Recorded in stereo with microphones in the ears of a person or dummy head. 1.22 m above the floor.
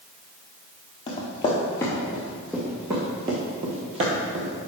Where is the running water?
I don't hear running water.